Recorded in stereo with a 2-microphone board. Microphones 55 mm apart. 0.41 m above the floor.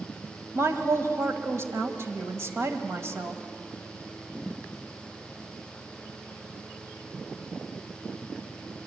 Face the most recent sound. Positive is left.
turn(degrees=-50)  # may be behind; listen again after turning